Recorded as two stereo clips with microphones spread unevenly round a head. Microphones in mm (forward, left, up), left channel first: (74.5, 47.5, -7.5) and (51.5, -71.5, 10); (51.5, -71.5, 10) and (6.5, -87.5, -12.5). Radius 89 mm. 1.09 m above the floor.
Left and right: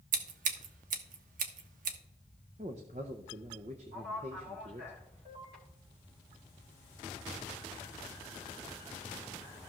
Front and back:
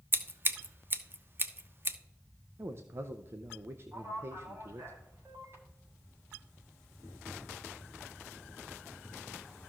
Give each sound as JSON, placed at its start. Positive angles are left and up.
{"t": 0.1, "sound": "scissors", "azimuth_deg": -110, "distance_m": 1.2}
{"t": 2.6, "sound": "a man speaking", "azimuth_deg": -155, "distance_m": 0.6}
{"t": 3.9, "sound": "a man speaking", "azimuth_deg": -140, "distance_m": 5.0}